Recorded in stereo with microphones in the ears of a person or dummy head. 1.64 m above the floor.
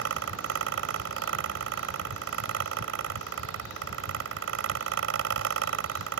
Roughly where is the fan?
Right.